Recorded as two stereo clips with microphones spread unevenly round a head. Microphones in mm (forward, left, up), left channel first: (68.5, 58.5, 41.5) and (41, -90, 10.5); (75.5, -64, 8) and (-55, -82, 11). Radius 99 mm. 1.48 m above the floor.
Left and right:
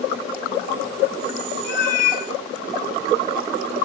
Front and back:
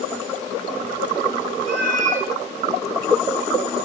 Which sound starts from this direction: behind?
A cat meowing, at 1.6 s.